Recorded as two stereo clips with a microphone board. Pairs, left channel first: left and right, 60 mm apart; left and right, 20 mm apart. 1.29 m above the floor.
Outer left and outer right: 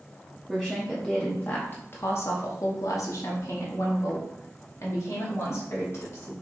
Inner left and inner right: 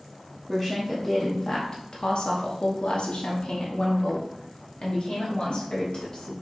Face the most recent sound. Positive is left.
turn(degrees=45)  # may be behind; listen again after turning